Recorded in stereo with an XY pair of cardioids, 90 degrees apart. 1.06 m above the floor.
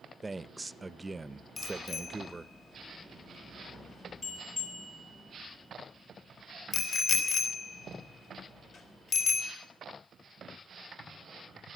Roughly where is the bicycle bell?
Left.